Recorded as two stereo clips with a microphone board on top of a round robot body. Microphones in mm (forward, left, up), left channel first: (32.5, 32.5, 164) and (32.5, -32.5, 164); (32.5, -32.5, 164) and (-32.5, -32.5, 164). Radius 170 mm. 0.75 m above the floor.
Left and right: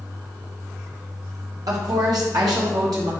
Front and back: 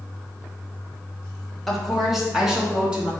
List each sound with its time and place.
1.7 s a woman speaking: 85° right, 1.5 m; by 3.1 s 105° right, 2.5 m